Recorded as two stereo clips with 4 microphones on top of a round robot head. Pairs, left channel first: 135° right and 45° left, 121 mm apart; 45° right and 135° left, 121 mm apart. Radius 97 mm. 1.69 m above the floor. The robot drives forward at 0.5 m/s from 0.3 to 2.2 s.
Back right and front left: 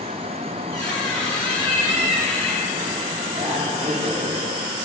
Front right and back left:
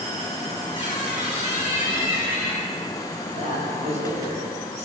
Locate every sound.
0.7 s a squeak: 165° left, 2 m; by 2.8 s 170° left, 2.5 m
3.3 s a man speaking: 100° left, 2 m